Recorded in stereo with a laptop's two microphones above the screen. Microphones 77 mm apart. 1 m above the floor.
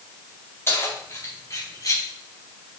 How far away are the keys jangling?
About 4.5 m.